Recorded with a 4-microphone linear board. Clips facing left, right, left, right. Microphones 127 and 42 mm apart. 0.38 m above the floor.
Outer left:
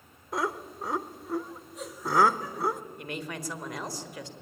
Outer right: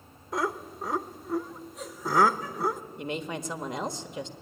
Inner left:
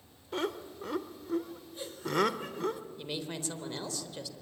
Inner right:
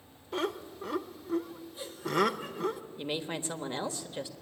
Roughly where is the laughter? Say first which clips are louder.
Outer right 1 dB, inner right 1 dB; centre.